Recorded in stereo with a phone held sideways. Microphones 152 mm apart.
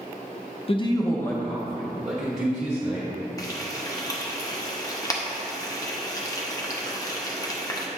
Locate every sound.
0.7 s a man speaking: 40° left (ahead or behind), 0.5 m; by 3.1 s 10° right (ahead or behind), 1.7 m
3.4 s frying: 25° left (ahead or behind), 0.8 m